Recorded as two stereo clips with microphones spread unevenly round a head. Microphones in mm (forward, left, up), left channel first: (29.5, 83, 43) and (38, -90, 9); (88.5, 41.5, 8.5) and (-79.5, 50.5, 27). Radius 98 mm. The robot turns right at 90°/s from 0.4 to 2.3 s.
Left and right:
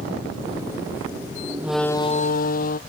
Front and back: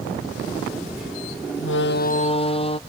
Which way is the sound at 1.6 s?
10° right.